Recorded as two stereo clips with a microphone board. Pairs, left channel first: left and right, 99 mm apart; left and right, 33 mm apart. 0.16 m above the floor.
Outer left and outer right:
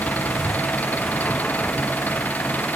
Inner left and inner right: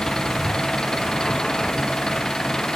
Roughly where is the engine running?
Centre.